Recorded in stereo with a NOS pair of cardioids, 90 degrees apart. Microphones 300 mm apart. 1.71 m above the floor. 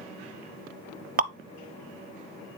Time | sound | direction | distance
1.2 | dripping | 30° right | 0.7 m